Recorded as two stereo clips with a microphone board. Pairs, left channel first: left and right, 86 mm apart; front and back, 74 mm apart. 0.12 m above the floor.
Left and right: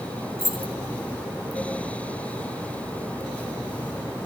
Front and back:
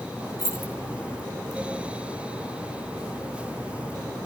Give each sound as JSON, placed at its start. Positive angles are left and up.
{"t": 0.4, "sound": "keys jangling", "azimuth_deg": 35, "distance_m": 6.5}